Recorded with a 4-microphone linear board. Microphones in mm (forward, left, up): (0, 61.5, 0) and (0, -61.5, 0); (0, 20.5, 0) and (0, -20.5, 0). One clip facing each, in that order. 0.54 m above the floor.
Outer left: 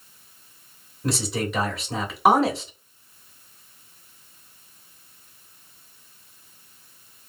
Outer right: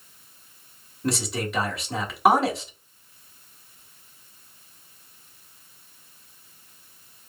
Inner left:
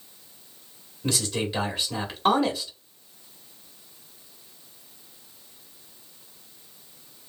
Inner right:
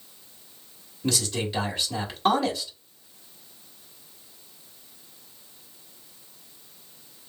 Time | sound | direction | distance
1.0 | a man speaking | centre (ahead or behind) | 1.6 m